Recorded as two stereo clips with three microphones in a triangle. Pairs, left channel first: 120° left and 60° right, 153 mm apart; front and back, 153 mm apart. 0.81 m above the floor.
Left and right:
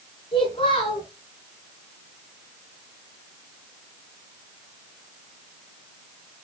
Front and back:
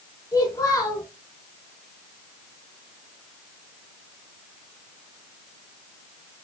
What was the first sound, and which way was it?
A child speaking, 70° left.